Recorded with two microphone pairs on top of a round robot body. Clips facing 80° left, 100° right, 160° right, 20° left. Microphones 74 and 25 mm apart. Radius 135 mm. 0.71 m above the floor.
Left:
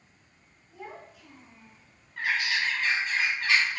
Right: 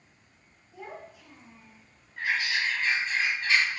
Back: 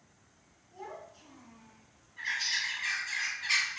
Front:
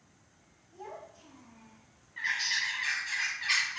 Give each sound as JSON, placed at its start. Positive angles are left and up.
{"t": 0.7, "sound": "a child speaking", "azimuth_deg": 180, "distance_m": 1.6}
{"t": 2.2, "sound": "a bird", "azimuth_deg": 65, "distance_m": 0.7}